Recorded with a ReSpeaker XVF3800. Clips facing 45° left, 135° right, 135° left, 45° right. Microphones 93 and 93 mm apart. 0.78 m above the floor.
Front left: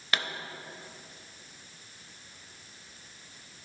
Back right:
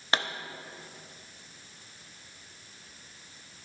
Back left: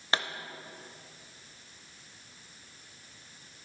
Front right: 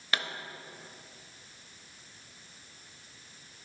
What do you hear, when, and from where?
0.1 s a pop: straight behind, 0.6 m